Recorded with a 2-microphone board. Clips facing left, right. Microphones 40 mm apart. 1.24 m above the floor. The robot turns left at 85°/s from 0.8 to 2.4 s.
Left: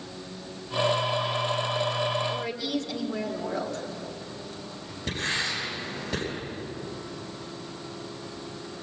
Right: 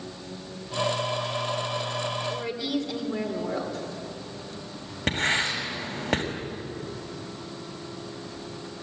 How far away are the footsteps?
No footsteps in this recording.